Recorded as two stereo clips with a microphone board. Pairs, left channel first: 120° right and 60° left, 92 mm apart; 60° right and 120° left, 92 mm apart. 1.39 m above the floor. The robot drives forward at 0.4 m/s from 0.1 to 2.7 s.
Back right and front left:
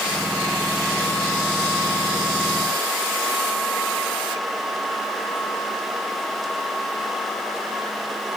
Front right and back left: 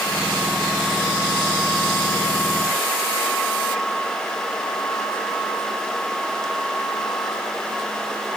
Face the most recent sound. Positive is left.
No sound to turn to.